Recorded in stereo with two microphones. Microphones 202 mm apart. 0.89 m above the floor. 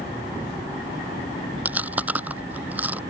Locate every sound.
1.6 s chewing: 10° right (ahead or behind)